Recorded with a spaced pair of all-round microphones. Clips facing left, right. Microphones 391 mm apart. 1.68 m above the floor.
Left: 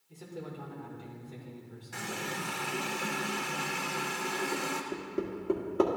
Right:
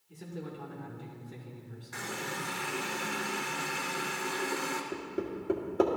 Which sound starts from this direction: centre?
Hammering, at 4.9 s.